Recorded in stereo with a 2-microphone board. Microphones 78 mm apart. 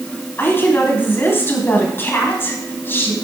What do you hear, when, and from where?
0.4 s a woman speaking: 30° left (ahead or behind), 2.5 m